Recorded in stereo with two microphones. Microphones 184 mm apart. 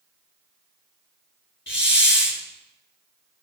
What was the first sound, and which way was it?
A hiss, 90° left.